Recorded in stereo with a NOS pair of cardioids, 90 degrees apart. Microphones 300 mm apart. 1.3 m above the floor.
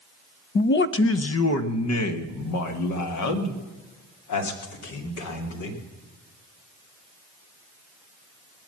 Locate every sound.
0.6 s a man speaking: 30° left, 0.6 m; by 5.8 s 75° left, 3.5 m